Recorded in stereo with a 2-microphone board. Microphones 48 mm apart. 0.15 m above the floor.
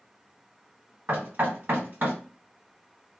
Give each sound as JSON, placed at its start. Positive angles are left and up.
{"t": 1.1, "sound": "knocking", "side_deg": -40, "distance_m": 1.9}